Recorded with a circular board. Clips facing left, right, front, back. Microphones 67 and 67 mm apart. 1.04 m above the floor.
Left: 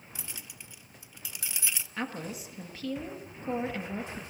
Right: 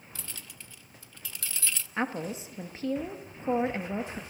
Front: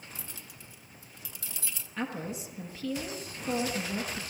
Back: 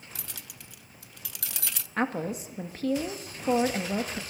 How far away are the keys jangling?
About 0.6 m.